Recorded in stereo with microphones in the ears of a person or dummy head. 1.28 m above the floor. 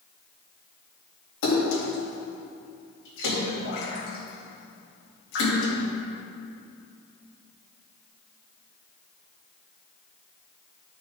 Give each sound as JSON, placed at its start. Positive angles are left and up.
{"t": 1.4, "sound": "a splash", "side_deg": 65, "distance_m": 2.5}